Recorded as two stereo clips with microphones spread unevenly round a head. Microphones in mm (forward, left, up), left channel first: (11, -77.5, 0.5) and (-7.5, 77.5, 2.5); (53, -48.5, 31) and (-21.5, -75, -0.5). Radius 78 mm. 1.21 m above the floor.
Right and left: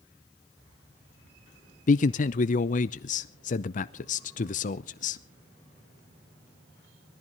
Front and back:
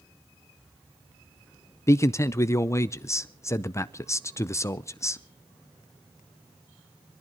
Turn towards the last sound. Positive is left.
turn(degrees=-40)